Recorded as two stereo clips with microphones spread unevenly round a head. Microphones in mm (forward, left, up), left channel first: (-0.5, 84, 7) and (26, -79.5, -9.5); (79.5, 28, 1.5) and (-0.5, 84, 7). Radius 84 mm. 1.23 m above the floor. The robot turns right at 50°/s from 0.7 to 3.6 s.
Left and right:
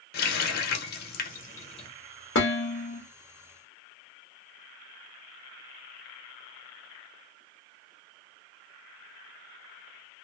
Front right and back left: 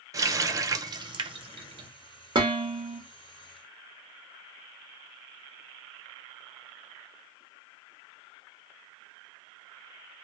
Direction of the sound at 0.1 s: 95° left.